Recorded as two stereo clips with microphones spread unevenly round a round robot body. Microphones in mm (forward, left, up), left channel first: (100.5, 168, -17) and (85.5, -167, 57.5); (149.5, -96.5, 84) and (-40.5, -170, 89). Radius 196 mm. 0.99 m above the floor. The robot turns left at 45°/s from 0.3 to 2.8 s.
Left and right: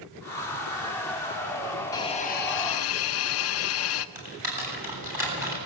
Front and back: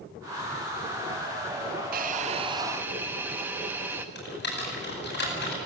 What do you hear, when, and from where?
1.9 s a hiss: 160° left, 0.5 m; by 4.0 s 120° left, 0.5 m
4.2 s typing on a keyboard: 10° right, 9 m